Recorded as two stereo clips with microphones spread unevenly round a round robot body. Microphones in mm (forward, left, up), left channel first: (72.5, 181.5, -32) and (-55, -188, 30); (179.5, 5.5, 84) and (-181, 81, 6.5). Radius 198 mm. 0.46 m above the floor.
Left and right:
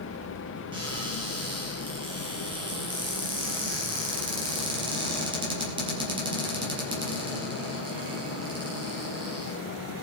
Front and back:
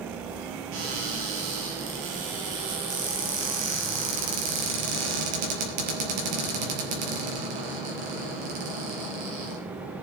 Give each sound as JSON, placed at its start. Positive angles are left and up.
{"t": 0.7, "sound": "a cupboard door", "azimuth_deg": 175, "distance_m": 5.0}